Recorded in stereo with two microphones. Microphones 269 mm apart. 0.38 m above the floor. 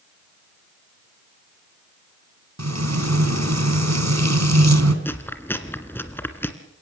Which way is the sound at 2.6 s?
75° right (ahead or behind).